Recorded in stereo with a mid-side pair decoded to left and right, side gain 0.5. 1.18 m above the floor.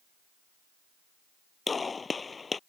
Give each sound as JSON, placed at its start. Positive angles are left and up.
{"t": 1.7, "sound": "a gunshot", "azimuth_deg": 30}